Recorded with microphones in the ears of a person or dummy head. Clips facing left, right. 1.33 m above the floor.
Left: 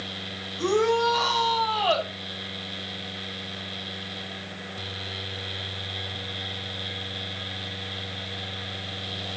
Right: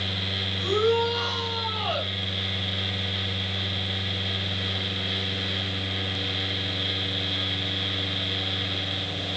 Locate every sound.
0.6 s a shout: 85° left, 7.5 m; by 2.1 s 80° left, 6.5 m